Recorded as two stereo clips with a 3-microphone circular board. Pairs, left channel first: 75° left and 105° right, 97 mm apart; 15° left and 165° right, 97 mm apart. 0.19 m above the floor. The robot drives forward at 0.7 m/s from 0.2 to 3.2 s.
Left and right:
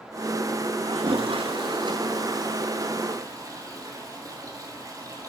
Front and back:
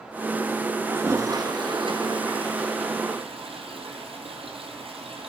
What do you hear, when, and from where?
0.8 s a toilet flushing: 100° right, 0.8 m; by 5.3 s 155° right, 1.9 m